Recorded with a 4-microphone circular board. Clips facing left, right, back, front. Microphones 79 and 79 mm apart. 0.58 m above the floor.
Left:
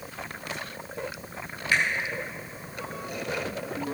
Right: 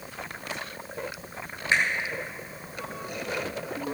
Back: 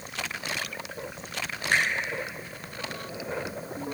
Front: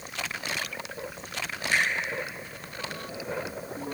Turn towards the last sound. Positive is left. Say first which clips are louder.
# right 1 dB, back 1 dB
turn(degrees=-155)